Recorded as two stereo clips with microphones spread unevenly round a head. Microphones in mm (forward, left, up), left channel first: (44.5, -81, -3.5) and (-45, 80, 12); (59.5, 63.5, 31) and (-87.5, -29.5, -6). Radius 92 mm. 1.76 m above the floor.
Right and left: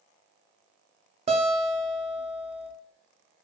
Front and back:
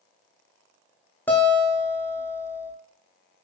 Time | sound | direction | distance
1.3 | a guitar | 90° left | 0.7 m